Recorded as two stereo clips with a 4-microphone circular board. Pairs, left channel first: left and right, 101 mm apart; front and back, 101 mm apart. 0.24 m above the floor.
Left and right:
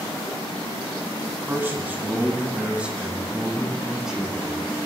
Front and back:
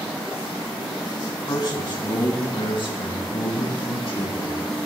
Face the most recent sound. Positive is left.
turn(degrees=-5)